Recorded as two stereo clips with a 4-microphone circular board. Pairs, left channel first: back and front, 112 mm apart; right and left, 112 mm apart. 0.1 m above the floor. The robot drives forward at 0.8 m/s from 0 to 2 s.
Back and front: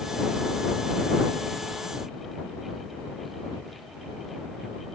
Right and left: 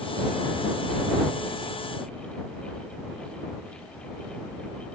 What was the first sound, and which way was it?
Only background noise.